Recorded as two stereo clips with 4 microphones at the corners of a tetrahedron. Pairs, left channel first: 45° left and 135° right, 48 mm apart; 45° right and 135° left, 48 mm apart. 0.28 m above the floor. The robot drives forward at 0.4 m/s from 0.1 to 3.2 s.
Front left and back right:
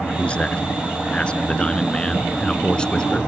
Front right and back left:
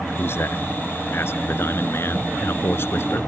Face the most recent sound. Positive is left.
turn(degrees=-25)